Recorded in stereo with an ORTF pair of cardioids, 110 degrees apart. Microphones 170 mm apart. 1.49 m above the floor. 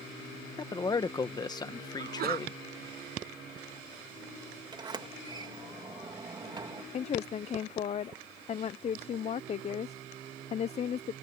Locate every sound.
0.6 s a man speaking: 25° left
2.0 s a sneeze: 65° right
4.7 s a sliding door: 25° right
6.9 s a woman speaking: 40° left